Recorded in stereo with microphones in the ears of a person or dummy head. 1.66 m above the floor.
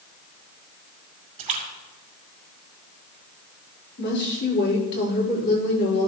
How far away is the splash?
About 4.5 m.